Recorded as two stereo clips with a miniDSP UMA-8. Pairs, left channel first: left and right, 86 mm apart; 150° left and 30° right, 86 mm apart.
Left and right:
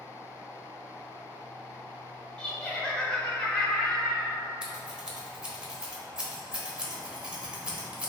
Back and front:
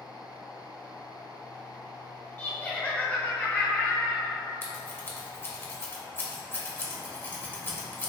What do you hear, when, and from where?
2.4 s laughter: 145° left, 0.9 m
4.6 s scissors: 165° right, 1.0 m